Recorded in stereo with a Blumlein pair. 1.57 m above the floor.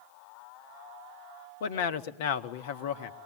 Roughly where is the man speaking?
Ahead left.